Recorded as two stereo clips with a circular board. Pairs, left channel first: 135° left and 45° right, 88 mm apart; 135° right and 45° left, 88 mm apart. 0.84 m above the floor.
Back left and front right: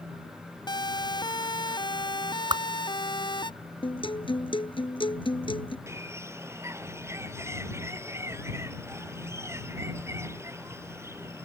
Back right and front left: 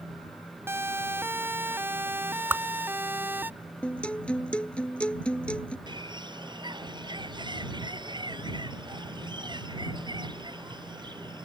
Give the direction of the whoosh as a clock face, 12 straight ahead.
1 o'clock.